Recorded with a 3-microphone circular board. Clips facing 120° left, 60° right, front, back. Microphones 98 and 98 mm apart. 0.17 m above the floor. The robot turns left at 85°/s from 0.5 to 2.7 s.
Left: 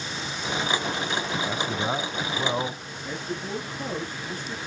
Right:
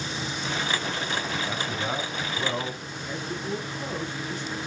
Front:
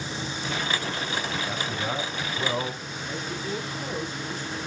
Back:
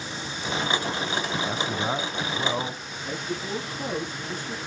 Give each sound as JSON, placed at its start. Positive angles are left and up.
{"t": 1.4, "sound": "a man speaking", "azimuth_deg": -160, "distance_m": 1.3}
{"t": 3.0, "sound": "a man speaking", "azimuth_deg": 160, "distance_m": 7.0}